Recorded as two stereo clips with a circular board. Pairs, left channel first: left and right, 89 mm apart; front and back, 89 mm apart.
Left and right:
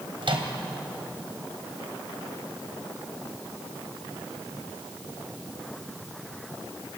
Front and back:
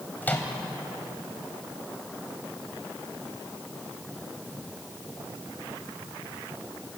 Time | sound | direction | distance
0.2 | a microwave | 70° right | 2.5 m